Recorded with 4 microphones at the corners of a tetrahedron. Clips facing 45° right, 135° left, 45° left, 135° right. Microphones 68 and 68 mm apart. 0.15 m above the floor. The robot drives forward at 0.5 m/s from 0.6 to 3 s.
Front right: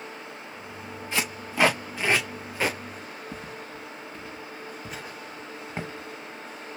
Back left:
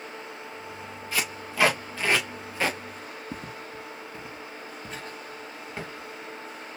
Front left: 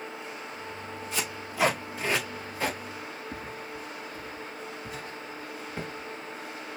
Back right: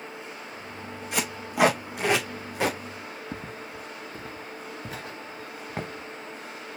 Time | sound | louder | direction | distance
1.1 | tape being pulled | front right 2 dB, back right 6 dB | 110° right | 2.5 m
3.3 | footsteps | even, back right 1 dB | 170° left | 1.1 m